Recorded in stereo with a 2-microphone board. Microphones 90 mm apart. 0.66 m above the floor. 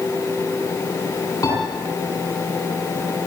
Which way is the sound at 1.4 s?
35° left (ahead or behind).